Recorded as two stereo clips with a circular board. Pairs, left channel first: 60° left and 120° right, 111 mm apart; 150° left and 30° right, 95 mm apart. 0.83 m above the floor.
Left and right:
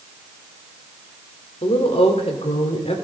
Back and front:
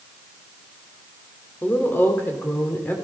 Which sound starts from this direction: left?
A woman speaking, at 1.6 s.